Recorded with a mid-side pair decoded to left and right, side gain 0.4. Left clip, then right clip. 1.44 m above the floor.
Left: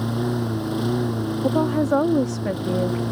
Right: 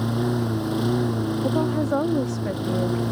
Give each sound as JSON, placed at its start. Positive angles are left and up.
{"t": 0.0, "sound": "a lawn mower", "azimuth_deg": -5}
{"t": 1.4, "sound": "a woman speaking", "azimuth_deg": 30}